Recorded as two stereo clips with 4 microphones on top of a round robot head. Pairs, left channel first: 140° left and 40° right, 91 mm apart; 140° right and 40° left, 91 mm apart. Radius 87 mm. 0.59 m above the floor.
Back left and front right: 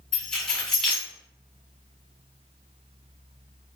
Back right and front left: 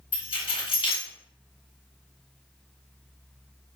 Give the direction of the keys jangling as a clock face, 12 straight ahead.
4 o'clock.